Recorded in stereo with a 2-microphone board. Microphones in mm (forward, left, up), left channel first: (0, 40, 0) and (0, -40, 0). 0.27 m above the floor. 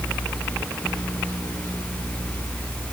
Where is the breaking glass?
I don't hear breaking glass.